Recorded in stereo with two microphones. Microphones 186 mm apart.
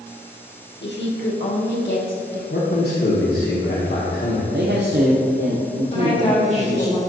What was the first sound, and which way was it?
A woman speaking, 65° left (ahead or behind).